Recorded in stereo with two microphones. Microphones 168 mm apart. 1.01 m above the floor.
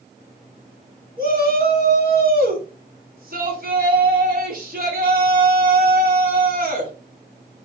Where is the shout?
60° right (ahead or behind), 3.5 m.